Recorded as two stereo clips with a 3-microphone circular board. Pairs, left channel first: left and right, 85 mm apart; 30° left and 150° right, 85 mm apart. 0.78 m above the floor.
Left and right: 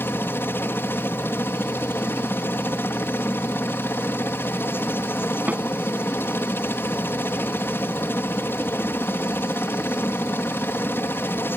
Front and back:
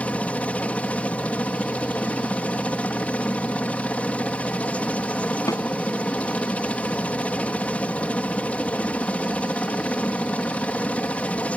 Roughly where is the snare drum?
Ahead.